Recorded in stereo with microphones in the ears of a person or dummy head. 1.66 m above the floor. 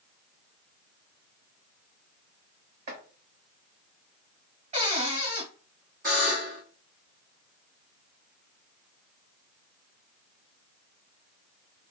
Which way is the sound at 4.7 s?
40° right (ahead or behind).